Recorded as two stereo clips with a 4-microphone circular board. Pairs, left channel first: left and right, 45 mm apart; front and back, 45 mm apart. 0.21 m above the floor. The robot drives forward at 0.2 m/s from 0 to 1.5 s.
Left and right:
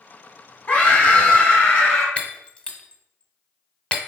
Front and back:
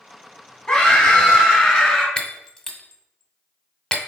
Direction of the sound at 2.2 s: 70° left.